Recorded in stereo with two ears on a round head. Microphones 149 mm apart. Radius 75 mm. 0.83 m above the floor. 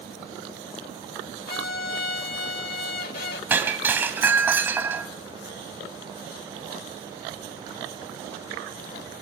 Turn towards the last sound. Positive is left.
turn(degrees=-10)  # may be behind; listen again after turning